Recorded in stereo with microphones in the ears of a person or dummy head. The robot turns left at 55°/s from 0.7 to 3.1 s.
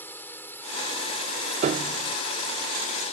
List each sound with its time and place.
0.0 s a drone: 5° left (ahead or behind); by 3.1 s 45° left (ahead or behind)
1.6 s a piano: 40° right (ahead or behind); by 2.2 s 15° right (ahead or behind)